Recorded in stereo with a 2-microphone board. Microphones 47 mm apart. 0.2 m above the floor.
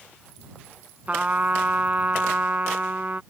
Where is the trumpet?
35° right (ahead or behind).